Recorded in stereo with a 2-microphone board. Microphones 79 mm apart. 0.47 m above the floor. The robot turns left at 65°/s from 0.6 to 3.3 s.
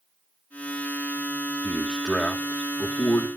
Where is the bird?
I don't hear a bird.